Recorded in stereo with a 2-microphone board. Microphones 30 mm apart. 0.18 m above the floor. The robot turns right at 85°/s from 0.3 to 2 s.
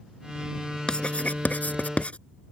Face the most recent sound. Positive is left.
turn(degrees=50)  # may be behind; listen again after turning